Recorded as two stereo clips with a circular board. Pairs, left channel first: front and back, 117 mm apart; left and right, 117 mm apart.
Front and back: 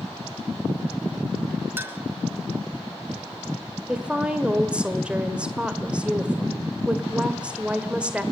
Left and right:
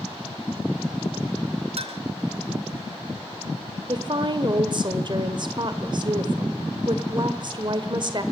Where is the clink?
110° right, 1.1 m.